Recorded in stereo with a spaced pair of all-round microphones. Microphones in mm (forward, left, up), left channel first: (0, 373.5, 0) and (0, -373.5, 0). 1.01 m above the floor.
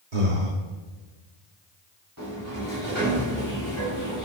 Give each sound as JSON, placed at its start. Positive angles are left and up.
{"t": 0.1, "sound": "breathing", "side_deg": -85, "distance_m": 1.6}
{"t": 2.2, "sound": "a sliding door", "side_deg": -25, "distance_m": 4.5}